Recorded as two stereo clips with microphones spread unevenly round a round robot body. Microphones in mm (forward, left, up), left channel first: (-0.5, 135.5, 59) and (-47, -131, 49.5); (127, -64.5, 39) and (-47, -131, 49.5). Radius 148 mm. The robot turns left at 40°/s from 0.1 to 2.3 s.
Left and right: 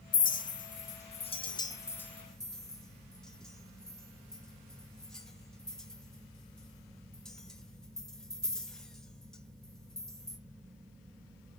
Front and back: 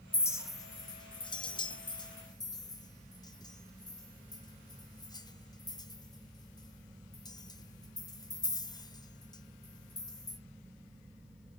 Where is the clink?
80° left, 0.9 m; by 10.4 s 10° right, 0.9 m.